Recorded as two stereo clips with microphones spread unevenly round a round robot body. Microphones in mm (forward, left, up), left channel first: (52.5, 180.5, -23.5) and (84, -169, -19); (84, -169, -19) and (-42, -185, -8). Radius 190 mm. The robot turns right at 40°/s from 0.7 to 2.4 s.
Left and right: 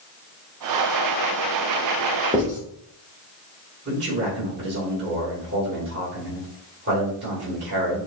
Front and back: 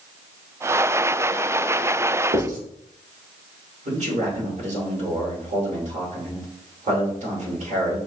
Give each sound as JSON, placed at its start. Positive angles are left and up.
{"t": 2.3, "sound": "writing", "azimuth_deg": -165, "distance_m": 1.1}
{"t": 3.9, "sound": "a man speaking", "azimuth_deg": -150, "distance_m": 2.0}